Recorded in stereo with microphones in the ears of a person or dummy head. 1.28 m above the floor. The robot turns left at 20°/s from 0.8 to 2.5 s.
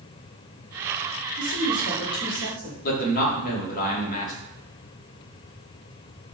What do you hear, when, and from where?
1.4 s a woman speaking: 70° left (ahead or behind), 1.6 m; by 2.7 s 45° left (ahead or behind), 1.6 m
2.8 s a man speaking: 45° left (ahead or behind), 1.1 m